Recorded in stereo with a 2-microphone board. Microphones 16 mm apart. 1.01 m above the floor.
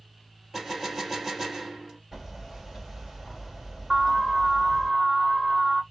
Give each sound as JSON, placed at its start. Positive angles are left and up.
{"t": 0.5, "sound": "a gunshot", "side_deg": -25, "distance_m": 2.5}
{"t": 2.1, "sound": "hammering", "side_deg": -35, "distance_m": 2.5}
{"t": 3.9, "sound": "an alarm", "side_deg": -15, "distance_m": 1.2}